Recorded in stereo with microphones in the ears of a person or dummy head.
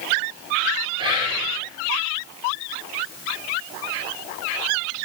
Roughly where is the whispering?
Right.